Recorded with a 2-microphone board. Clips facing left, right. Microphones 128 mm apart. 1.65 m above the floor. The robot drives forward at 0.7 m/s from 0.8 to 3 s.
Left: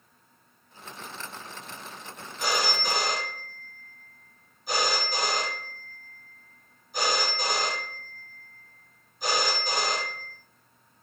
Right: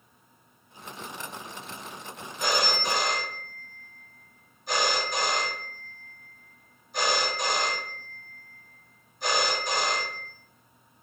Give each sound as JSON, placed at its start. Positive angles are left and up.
{"t": 2.4, "sound": "a phone ringing", "side_deg": 5, "distance_m": 2.0}